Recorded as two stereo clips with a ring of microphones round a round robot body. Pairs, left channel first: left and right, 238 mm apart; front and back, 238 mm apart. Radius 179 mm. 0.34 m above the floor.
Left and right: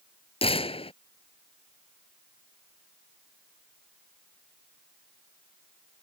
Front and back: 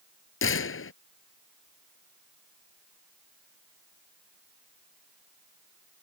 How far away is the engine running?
I don't hear an engine running.